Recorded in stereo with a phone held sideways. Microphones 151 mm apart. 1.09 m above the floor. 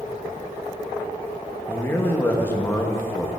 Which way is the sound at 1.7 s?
15° left (ahead or behind).